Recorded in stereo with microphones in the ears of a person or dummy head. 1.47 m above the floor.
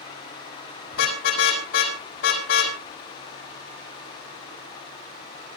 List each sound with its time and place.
0.9 s a car horn: 70° left (ahead or behind), 5.5 m